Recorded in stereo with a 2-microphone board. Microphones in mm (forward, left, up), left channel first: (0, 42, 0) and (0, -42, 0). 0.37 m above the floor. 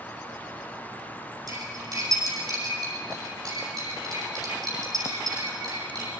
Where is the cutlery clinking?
50° right (ahead or behind), 9 m.